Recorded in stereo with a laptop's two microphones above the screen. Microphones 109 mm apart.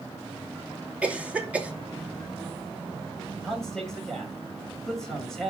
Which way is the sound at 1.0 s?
10° right (ahead or behind).